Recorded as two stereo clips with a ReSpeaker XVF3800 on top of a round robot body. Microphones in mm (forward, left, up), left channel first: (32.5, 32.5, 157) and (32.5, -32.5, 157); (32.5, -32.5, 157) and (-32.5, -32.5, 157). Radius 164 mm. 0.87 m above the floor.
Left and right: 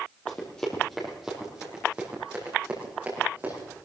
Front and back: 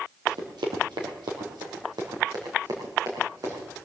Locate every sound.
0.3 s running footsteps: 160° left, 2.0 m; by 3.7 s 155° right, 5 m